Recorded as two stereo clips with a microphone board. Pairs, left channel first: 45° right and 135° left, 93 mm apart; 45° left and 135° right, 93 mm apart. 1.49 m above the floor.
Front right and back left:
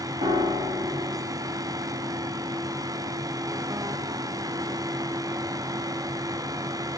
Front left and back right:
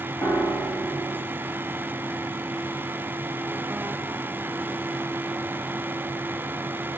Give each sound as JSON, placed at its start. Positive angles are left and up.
{"t": 0.2, "sound": "a piano", "azimuth_deg": 130, "distance_m": 1.6}